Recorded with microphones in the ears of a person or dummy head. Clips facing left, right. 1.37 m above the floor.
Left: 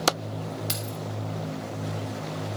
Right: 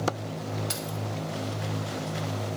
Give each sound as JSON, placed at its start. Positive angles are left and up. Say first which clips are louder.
{"t": 0.7, "sound": "keys jangling", "louder": "even", "side_deg": 60, "distance_m": 3.0}